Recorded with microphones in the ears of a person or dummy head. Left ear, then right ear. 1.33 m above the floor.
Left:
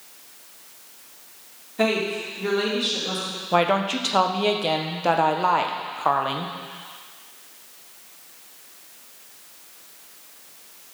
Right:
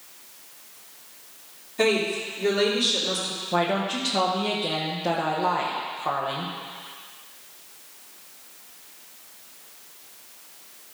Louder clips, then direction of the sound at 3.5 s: Left 4 dB; 55° left (ahead or behind).